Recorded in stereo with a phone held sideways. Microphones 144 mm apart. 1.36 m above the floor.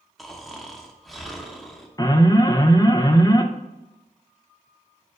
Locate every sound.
0.2 s snoring: centre (ahead or behind), 0.9 m
2.0 s an alarm: 25° left (ahead or behind), 0.6 m